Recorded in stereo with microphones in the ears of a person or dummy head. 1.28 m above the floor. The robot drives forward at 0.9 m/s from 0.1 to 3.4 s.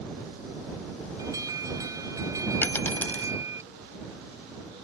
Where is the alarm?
20° right (ahead or behind).